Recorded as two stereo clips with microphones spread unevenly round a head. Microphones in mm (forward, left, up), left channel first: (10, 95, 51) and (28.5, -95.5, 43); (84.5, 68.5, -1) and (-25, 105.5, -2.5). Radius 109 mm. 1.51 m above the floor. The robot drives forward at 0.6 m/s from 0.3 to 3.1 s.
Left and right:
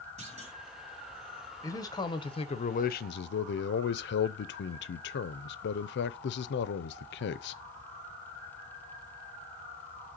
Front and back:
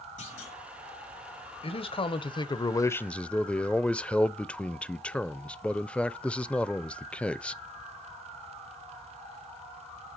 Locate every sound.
0.2 s a clunk: 30° right, 3.5 m
1.6 s a man speaking: 20° left, 1.2 m; by 7.6 s 65° left, 0.5 m